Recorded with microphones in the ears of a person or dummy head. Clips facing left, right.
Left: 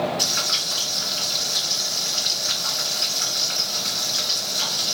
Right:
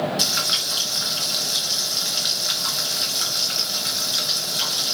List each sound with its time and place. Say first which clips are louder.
0.2 s frying: right 1 dB; 45° right (ahead or behind), 2 m